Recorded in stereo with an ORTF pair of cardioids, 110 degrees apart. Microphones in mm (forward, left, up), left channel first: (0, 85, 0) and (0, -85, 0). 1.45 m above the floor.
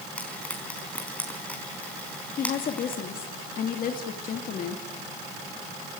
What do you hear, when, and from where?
0.2 s frying: 10° left, 4.5 m
2.4 s a woman speaking: 55° left, 2.5 m